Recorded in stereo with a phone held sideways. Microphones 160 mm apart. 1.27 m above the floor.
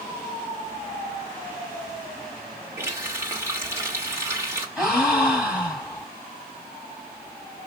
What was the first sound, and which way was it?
A running tap, 15° right (ahead or behind).